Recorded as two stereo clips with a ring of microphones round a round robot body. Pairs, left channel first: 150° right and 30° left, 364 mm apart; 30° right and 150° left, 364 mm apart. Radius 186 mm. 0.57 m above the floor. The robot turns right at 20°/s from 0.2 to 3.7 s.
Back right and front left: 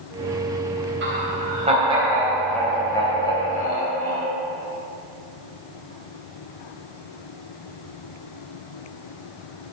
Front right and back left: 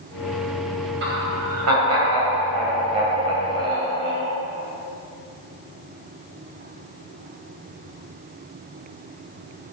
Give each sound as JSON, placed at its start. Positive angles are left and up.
{"t": 1.0, "sound": "laughter", "azimuth_deg": 90, "distance_m": 3.5}